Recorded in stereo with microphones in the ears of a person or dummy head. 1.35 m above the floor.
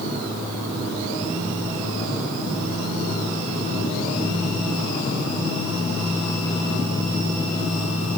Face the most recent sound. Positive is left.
No sound to turn to.